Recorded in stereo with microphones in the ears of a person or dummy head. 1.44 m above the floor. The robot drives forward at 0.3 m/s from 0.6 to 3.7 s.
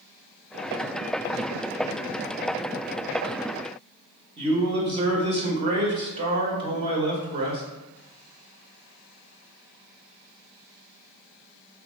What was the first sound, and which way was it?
A man speaking, 35° right (ahead or behind).